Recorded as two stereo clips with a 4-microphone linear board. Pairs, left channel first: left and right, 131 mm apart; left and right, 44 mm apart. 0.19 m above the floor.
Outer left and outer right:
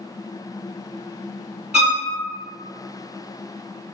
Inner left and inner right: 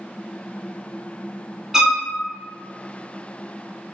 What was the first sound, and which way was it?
A violin, 5° right (ahead or behind).